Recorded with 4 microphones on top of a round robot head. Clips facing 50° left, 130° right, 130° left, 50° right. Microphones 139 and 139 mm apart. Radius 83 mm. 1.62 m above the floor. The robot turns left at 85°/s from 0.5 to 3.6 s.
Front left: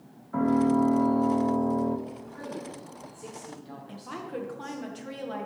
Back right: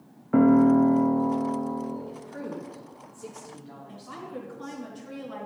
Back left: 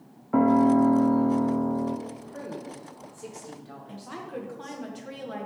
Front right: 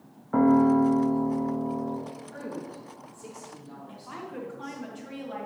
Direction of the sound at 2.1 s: 120° right.